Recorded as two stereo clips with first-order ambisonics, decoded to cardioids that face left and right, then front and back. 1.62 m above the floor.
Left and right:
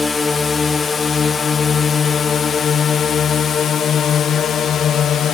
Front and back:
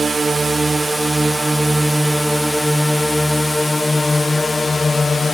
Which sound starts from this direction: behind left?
A drone, at 0.0 s.